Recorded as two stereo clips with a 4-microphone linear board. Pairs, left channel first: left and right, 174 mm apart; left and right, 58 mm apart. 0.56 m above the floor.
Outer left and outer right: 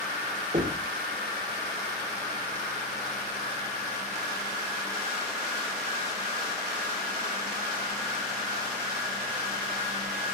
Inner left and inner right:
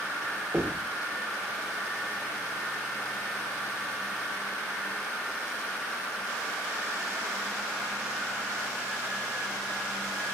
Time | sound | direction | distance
0.5 | knocking | 45° right (ahead or behind) | 1.7 m